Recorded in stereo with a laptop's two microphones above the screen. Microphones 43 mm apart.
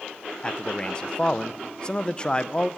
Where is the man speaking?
25° left (ahead or behind), 0.5 m.